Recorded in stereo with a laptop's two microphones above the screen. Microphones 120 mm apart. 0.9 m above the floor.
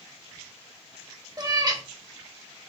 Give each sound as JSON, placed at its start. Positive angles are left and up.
{"t": 1.4, "sound": "a cat meowing", "side_deg": -35, "distance_m": 0.8}